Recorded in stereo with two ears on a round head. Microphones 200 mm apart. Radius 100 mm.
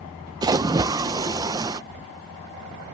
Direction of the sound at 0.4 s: 15° right (ahead or behind).